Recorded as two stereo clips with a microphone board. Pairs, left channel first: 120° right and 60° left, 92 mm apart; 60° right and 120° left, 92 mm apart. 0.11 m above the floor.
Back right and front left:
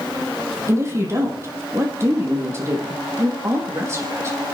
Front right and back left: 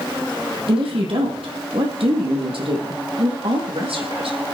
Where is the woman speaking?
120° left, 4.5 m.